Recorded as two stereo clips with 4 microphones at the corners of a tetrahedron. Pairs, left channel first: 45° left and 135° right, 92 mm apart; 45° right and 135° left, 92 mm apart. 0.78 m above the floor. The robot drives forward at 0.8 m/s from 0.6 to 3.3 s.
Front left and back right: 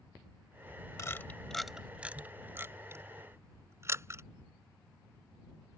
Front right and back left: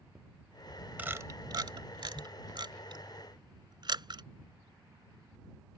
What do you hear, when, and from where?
1.0 s a camera shutter: 70° left; by 4.2 s 165° left